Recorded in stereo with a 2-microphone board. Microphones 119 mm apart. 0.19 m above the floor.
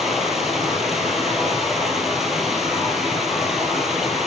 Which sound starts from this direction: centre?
Running water, at 0.0 s.